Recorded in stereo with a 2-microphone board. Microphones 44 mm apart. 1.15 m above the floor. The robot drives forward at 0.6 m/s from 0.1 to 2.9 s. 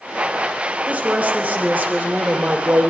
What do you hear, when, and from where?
0.9 s a woman speaking: 35° right (ahead or behind), 4.5 m; by 2.9 s 45° right (ahead or behind), 3.5 m